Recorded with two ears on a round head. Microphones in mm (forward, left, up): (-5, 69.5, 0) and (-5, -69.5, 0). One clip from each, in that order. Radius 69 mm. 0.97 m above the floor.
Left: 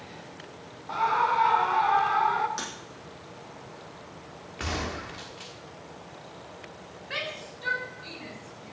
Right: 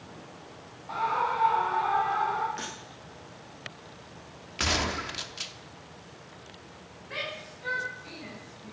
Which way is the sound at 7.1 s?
70° left (ahead or behind).